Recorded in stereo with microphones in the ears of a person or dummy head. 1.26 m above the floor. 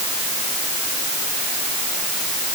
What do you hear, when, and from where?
Only background noise.